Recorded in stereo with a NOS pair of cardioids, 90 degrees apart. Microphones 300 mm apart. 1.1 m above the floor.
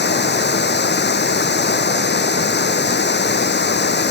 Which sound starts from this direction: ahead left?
Running water, at 0.0 s.